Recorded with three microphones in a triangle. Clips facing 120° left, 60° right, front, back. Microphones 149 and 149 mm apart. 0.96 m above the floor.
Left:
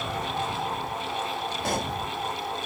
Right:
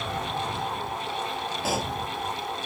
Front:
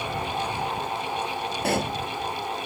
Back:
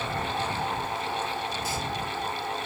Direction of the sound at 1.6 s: 25° left.